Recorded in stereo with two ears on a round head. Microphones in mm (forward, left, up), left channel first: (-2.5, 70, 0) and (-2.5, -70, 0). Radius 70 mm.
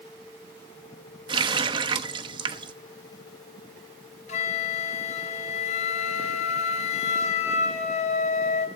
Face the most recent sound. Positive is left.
turn(degrees=45)  # may be behind; listen again after turning